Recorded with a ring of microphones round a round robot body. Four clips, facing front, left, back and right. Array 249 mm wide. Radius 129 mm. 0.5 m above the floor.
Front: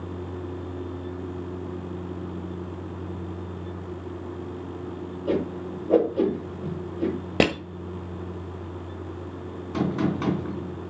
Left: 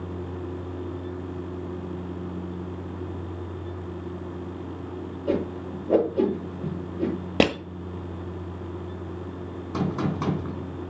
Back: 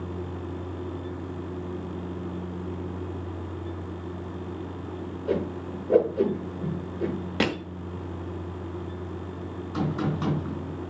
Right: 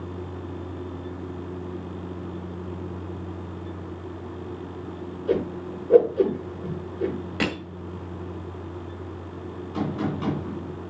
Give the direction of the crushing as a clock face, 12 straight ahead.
10 o'clock.